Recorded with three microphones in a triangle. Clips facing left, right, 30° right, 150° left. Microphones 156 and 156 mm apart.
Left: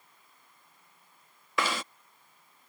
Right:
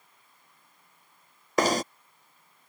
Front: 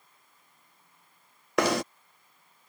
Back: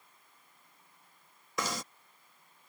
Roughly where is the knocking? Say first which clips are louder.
Right 8 dB, front 12 dB; ahead right.